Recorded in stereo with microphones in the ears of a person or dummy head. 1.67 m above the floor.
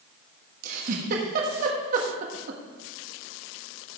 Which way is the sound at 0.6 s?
55° right (ahead or behind).